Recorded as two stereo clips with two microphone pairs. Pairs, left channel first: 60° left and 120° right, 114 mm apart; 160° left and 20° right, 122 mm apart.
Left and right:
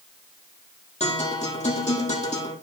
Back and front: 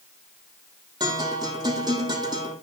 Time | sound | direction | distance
1.0 | a guitar | 35° left | 4.5 m